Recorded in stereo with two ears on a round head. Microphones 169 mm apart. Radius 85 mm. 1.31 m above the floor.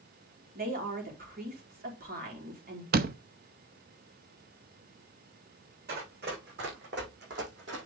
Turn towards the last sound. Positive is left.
turn(degrees=-70)  # may be behind; listen again after turning